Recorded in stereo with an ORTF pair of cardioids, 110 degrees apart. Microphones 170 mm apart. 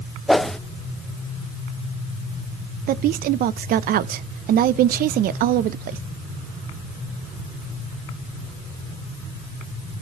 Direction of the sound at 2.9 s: 60° right.